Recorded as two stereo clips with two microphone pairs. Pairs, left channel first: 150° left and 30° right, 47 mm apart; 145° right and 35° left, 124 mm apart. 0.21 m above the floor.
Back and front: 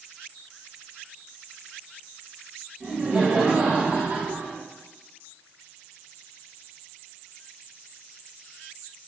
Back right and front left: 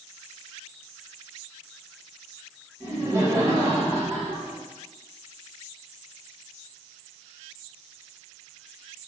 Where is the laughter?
15° left, 1.6 m; by 4.6 s 20° right, 2.5 m.